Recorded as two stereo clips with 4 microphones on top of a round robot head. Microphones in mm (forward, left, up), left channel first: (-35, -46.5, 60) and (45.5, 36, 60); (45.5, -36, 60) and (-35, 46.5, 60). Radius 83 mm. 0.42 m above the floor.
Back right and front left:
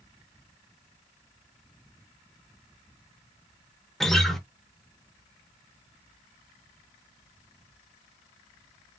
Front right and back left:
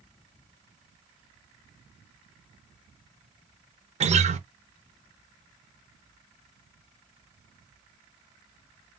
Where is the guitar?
140° left, 0.7 m.